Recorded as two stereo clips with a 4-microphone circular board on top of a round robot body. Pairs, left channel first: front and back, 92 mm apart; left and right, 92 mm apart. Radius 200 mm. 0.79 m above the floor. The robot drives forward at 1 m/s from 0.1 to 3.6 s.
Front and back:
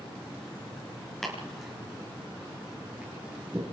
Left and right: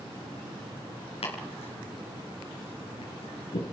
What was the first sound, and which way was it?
Chopping, 85° left.